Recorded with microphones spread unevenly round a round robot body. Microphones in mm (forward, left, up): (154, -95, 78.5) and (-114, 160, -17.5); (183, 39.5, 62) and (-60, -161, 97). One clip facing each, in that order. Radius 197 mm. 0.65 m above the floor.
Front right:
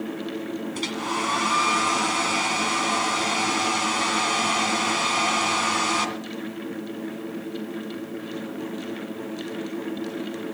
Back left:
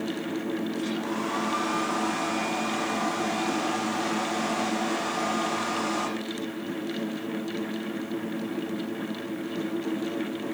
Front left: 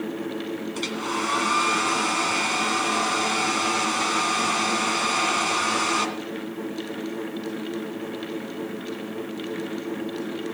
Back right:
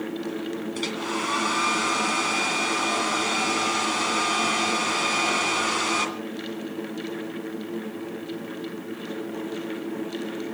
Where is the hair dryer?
50° right, 2.5 m.